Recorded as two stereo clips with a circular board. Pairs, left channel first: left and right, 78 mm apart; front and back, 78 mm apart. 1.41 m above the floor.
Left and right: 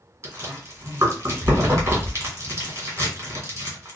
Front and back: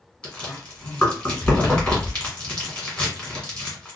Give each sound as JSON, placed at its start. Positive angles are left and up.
{"t": 0.2, "sound": "chewing", "azimuth_deg": -60, "distance_m": 1.6}